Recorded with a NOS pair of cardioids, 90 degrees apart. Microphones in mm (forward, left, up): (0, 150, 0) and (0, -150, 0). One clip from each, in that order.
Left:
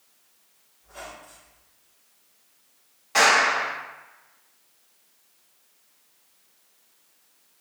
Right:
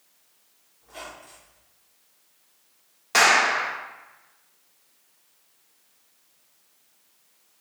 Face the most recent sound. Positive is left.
turn(degrees=-70)